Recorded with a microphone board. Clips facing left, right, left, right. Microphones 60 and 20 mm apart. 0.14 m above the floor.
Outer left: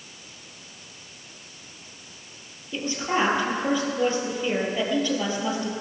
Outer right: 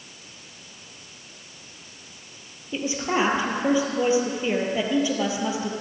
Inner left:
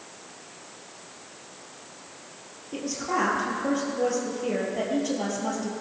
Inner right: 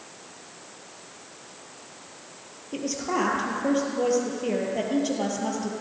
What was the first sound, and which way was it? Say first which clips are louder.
A woman speaking: outer right 1 dB, inner right 1 dB; 15° right (ahead or behind).